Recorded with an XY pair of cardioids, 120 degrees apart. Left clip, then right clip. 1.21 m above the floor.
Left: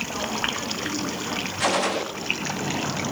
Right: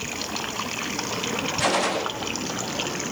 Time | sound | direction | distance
1.6 | a gunshot | 5° left | 1.3 m